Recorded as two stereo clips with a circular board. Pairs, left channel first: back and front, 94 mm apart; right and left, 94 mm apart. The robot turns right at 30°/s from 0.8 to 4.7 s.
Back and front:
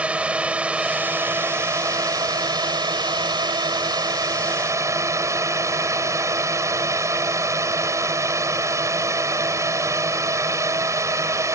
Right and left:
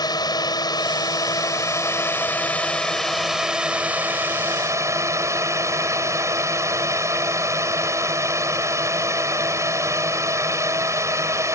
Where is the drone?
70° right; by 11.6 s 45° left.